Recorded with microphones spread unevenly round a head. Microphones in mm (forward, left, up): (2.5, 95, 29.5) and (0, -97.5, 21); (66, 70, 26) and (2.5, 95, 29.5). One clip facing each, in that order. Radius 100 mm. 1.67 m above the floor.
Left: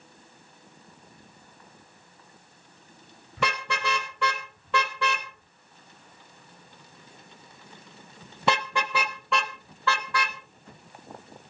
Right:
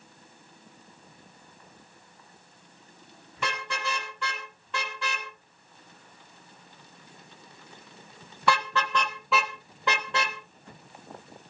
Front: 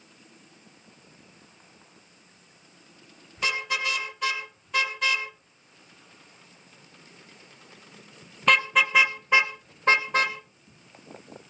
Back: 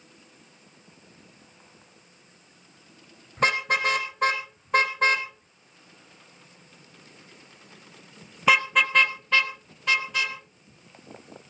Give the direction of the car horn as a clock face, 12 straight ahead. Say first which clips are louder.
Left 4 dB, back 5 dB; 8 o'clock.